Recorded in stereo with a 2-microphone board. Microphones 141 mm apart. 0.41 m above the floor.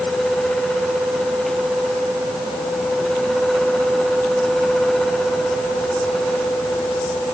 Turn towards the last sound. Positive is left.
No sound to turn to.